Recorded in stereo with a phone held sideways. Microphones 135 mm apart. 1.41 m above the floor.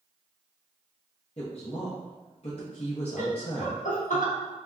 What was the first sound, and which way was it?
A woman speaking, 50° left (ahead or behind).